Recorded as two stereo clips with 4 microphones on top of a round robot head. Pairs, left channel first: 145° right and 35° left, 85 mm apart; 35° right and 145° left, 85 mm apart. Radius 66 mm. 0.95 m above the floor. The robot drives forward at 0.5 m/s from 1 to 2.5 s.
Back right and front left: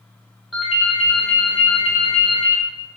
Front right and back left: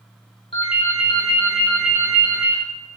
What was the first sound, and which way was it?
A ringtone, 50° right.